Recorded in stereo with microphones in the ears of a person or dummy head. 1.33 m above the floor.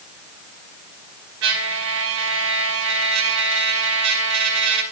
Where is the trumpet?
75° right (ahead or behind), 4.5 m.